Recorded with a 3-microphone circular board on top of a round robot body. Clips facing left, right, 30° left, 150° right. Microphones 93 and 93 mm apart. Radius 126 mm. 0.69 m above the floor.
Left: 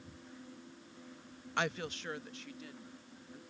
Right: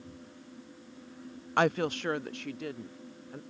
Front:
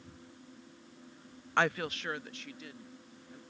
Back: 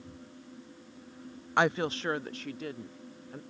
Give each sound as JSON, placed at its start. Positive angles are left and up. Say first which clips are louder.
{"t": 1.6, "sound": "a woman speaking", "louder": "right 10 dB, back 3 dB", "azimuth_deg": -80}